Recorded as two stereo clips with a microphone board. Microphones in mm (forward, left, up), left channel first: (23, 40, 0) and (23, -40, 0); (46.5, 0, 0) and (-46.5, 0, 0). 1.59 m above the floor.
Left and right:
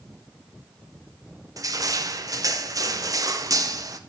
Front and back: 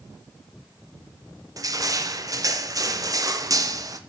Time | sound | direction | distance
1.6 | crushing | 130° right | 0.7 m